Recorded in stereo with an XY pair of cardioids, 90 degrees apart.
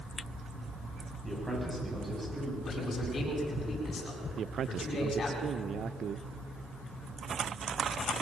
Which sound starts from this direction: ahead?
A man speaking, at 1.2 s.